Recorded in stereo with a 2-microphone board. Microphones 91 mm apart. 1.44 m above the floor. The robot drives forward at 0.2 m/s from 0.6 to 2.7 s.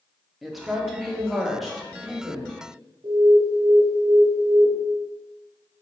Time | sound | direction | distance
0.4 | a woman speaking | centre (ahead or behind) | 0.5 m
3.0 | an alarm | 55° right (ahead or behind) | 0.6 m